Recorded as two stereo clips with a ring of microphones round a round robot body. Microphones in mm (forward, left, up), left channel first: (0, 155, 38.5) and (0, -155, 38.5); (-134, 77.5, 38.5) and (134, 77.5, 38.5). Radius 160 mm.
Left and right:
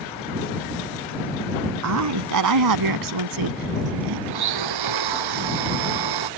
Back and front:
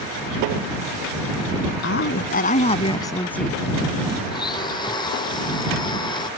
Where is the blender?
105° right.